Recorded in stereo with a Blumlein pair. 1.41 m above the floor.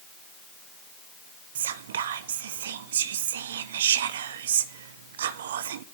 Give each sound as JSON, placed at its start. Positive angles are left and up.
{"t": 1.6, "sound": "whispering", "azimuth_deg": -60, "distance_m": 0.7}